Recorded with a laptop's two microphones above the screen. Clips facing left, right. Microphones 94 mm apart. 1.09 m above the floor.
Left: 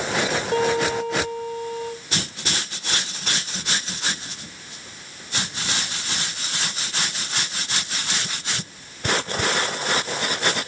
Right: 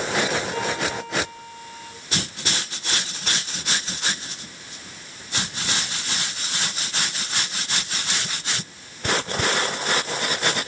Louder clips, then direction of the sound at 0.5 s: Left 6 dB; 60° left (ahead or behind).